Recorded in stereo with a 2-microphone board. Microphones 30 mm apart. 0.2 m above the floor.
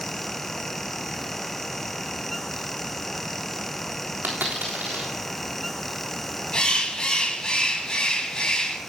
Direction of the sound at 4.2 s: 85° right.